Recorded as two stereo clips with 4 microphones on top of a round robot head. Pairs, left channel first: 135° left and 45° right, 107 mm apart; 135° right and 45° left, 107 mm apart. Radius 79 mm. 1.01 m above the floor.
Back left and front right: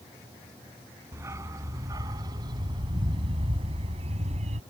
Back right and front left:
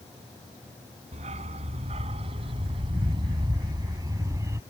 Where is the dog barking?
20° left; by 4.6 s 20° right.